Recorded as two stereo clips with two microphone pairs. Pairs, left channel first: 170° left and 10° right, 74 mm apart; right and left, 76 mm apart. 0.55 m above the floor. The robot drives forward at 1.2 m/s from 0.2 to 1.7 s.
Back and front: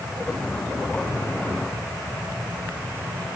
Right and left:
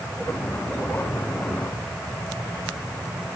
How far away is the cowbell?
No cowbell in this recording.